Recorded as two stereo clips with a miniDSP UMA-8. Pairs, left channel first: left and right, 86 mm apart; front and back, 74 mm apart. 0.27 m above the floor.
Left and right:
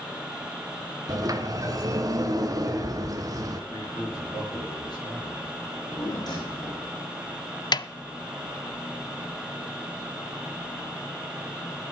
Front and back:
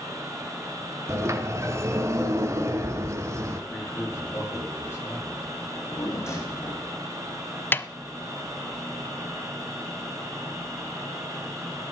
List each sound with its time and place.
1.1 s a sliding door: 130° right, 1.8 m
3.7 s a man speaking: 60° left, 6 m
5.6 s a drawer: 55° left, 5 m
7.7 s a snare drum: 60° left, 0.5 m